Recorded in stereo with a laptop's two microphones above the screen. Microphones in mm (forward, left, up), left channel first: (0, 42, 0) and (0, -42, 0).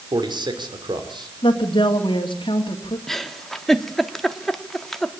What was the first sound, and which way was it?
A man speaking, 65° right (ahead or behind).